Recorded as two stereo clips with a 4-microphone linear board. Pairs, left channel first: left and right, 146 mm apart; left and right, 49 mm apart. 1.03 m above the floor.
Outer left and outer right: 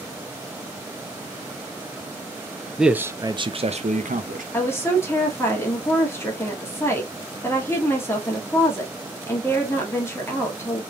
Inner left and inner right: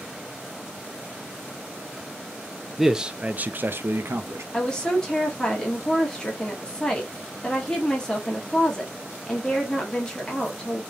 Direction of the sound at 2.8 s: Centre (ahead or behind).